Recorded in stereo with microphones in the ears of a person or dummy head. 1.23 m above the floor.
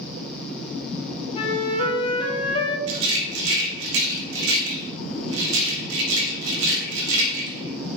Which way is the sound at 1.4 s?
30° left (ahead or behind).